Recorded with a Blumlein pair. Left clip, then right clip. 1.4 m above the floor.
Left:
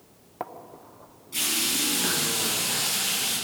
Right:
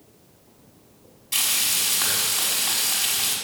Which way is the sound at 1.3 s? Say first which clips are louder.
Right 3 dB; 45° right.